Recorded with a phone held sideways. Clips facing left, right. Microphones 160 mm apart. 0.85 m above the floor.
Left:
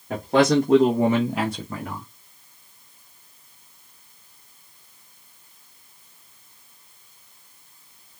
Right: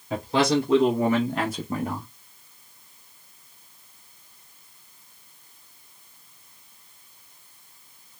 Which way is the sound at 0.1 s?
60° left (ahead or behind).